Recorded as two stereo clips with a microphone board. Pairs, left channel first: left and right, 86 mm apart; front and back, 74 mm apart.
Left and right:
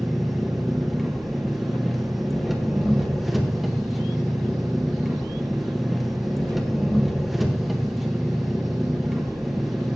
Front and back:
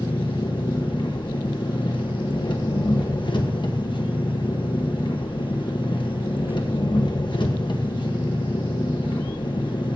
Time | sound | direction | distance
0.0 | an engine running | straight ahead | 1.6 m